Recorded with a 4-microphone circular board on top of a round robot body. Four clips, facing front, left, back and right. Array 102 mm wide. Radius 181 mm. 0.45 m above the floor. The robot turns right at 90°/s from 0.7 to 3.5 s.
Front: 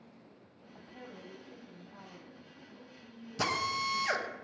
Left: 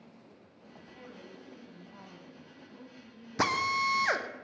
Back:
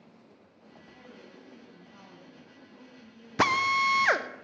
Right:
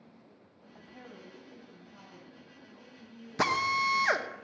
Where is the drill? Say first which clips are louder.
Right 1 dB, back 8 dB; 175° left, 1.1 m; by 4.3 s 175° right, 1.1 m.